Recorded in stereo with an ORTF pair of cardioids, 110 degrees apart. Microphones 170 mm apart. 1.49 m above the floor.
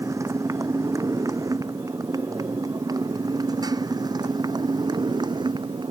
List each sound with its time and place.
0.0 s a motorcycle: 15° right; by 5.9 s 25° right